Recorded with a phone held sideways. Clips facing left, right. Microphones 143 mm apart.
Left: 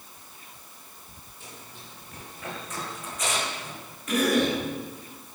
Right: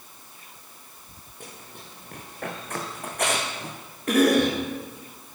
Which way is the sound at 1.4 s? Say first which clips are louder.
Right 3 dB; 55° right (ahead or behind).